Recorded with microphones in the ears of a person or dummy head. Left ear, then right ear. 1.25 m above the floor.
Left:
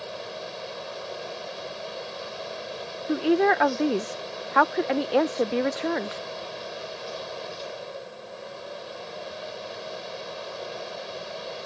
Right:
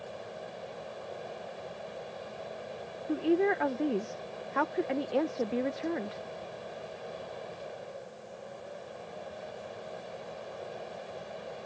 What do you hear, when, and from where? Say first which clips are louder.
0.0 s a fan: left 7 dB; 35° left (ahead or behind)
3.1 s a woman speaking: left 6 dB; 40° left (ahead or behind)